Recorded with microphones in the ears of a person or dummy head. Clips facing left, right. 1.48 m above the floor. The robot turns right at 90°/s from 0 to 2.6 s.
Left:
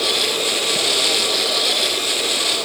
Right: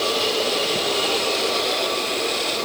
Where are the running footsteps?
No running footsteps in this recording.